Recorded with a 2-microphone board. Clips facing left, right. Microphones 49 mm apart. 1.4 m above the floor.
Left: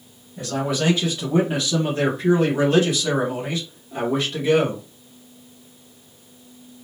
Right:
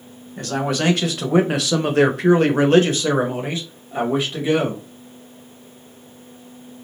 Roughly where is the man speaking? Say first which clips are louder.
Right 2 dB; right.